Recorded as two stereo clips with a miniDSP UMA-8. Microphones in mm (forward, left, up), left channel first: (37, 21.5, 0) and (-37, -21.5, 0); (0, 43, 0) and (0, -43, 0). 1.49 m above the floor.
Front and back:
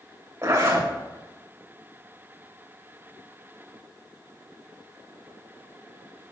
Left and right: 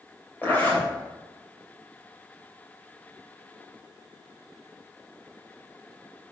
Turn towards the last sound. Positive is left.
turn(degrees=155)